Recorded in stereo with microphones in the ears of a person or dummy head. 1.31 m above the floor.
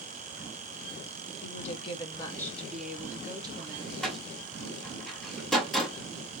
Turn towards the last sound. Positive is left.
turn(degrees=5)  # may be behind; listen again after turning